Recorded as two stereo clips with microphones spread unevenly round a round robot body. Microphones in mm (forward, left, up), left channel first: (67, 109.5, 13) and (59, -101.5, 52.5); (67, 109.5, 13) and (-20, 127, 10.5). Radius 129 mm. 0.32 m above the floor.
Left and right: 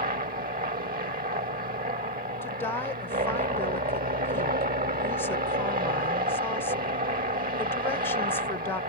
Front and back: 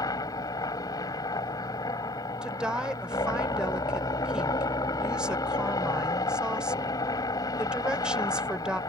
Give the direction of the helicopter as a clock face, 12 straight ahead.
2 o'clock.